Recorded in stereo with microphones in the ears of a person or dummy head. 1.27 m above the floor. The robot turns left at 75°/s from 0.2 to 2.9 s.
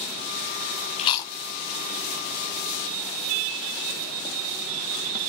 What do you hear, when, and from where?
1.0 s chewing: 35° left (ahead or behind), 0.6 m; by 1.3 s 10° left (ahead or behind), 0.6 m